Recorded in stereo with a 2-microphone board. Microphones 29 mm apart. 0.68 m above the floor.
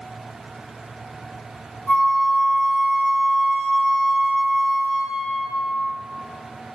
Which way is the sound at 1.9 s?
35° left (ahead or behind).